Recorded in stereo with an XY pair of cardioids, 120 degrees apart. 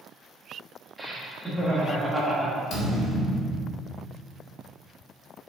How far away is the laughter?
About 1.3 m.